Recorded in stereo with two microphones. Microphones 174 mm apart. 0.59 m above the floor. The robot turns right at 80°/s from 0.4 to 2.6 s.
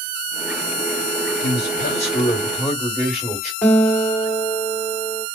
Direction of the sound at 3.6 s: 10° left (ahead or behind).